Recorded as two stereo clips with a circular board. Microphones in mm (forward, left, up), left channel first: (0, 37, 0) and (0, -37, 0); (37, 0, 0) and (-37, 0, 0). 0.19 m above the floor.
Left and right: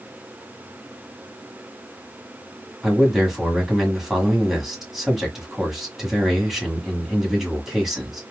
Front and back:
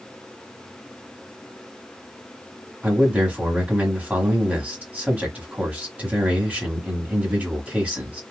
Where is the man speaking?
170° right, 1.4 m.